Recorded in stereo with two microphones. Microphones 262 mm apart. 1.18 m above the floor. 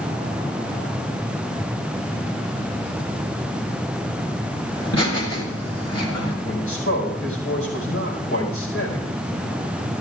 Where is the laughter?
80° left, 3.5 m.